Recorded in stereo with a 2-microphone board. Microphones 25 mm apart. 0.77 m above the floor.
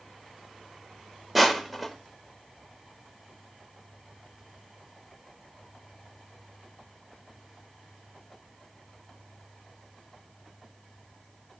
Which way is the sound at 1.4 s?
Centre (ahead or behind).